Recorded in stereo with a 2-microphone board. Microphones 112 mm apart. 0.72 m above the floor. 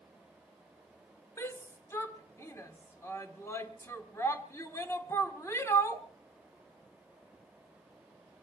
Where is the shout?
25° left (ahead or behind), 1.8 m.